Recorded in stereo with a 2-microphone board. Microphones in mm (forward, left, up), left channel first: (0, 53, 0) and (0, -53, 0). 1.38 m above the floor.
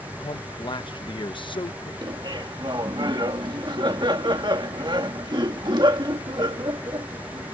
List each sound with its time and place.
0.2 s a man speaking: 50° left (ahead or behind)
2.0 s laughter: 45° right (ahead or behind)